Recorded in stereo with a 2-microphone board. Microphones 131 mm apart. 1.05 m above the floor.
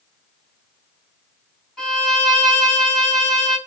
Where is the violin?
Centre (ahead or behind), 1.5 m.